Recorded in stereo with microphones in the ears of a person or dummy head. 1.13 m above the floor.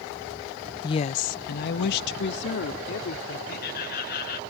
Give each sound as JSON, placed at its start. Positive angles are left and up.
{"t": 0.8, "sound": "a woman speaking", "side_deg": 20}
{"t": 3.5, "sound": "laughter", "side_deg": 55}